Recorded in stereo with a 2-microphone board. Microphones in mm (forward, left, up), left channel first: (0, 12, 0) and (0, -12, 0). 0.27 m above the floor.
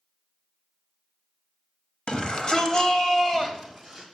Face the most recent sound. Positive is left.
turn(degrees=0)  # may be behind; listen again after turning